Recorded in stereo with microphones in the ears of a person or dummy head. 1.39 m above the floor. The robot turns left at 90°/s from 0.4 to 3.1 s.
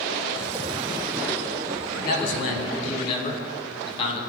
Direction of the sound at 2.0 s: 125° left.